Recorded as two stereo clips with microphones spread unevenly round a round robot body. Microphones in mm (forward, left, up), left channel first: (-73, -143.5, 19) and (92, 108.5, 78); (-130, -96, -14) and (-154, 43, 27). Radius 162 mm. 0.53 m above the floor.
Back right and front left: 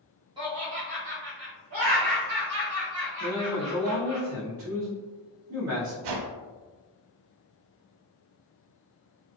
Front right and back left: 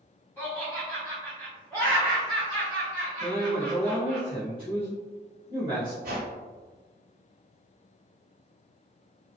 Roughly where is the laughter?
Ahead right.